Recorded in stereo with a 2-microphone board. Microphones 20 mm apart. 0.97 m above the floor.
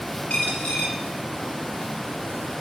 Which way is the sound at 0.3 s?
75° left (ahead or behind).